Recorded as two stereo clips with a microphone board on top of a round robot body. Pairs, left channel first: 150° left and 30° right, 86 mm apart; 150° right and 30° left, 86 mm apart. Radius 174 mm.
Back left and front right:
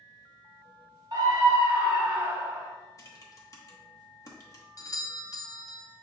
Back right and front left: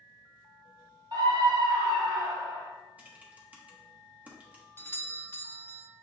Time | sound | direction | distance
1.1 | a scream | 5° left | 1.3 m
3.0 | typing on a keyboard | 100° left | 1.0 m
4.8 | a doorbell | 160° left | 0.6 m